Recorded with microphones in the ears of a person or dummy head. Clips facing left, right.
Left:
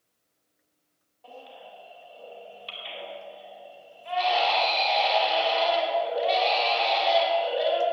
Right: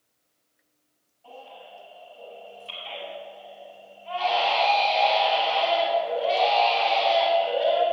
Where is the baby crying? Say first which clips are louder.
Right 1 dB; 75° left (ahead or behind), 4 m.